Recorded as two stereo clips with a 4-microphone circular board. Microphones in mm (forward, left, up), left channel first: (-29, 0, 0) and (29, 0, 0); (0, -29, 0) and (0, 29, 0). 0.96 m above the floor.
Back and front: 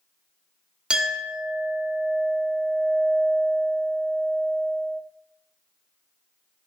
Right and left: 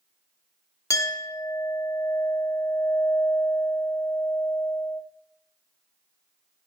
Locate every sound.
0.9 s a clink: 70° right, 1.3 m